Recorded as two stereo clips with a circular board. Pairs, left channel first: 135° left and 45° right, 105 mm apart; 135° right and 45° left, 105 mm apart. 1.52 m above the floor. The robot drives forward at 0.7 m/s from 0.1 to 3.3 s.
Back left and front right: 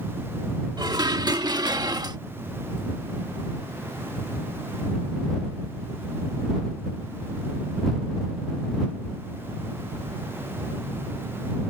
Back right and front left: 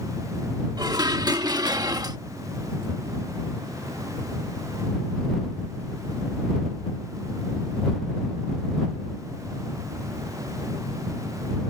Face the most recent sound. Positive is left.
turn(degrees=-5)